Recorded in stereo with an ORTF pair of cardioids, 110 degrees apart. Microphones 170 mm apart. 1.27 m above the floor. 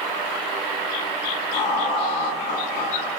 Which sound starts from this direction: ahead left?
Laughter, at 1.5 s.